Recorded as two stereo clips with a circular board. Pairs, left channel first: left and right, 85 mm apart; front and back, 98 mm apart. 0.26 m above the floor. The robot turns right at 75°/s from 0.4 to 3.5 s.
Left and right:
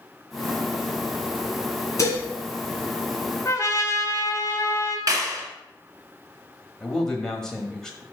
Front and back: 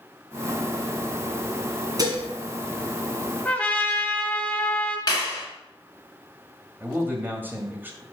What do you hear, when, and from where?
2.0 s dishes clattering: 135° left, 1.5 m; by 2.2 s 155° left, 1.5 m
3.5 s a trumpet: 65° left, 0.9 m; by 5.0 s 70° left, 0.9 m
5.1 s a clap: 45° right, 2 m
6.8 s a man speaking: 160° left, 1.2 m